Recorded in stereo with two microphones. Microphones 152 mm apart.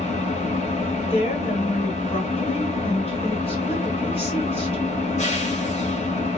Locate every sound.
0.0 s an engine running: 50° left (ahead or behind), 1.0 m
1.1 s a woman speaking: 40° left (ahead or behind), 1.3 m